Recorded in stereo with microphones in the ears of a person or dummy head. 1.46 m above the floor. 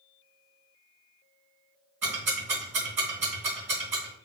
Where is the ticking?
10° right (ahead or behind), 1.7 m.